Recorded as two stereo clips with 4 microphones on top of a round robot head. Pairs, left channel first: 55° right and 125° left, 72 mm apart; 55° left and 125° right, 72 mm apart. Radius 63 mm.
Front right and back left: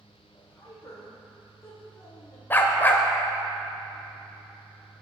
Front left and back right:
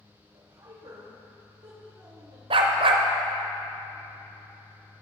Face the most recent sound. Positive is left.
turn(degrees=-125)